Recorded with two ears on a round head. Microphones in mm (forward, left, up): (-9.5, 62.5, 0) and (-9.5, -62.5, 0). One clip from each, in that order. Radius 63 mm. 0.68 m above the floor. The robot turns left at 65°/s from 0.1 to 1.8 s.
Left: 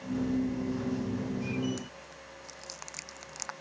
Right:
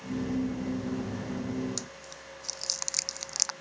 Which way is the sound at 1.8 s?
90° right.